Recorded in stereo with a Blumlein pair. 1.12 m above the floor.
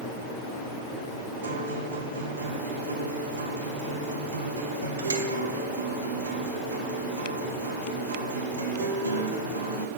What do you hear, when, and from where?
1.4 s a guitar: 70° right, 0.7 m